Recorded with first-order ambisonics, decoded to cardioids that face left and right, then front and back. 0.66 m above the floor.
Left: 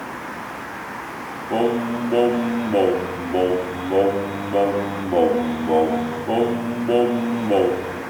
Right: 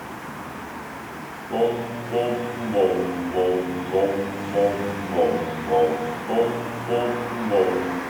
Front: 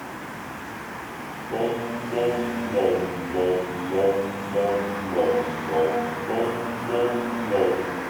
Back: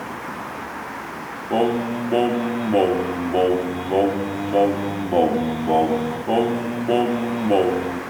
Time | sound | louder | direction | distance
1.5 | singing | left 2 dB, back 5 dB | 155° left | 0.6 m